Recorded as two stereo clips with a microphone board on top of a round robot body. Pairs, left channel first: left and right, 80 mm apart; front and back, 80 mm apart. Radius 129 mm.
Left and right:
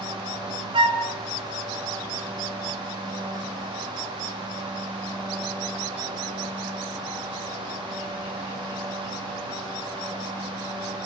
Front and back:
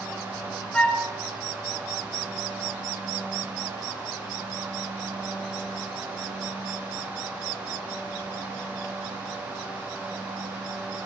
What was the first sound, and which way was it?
A flute, 75° right.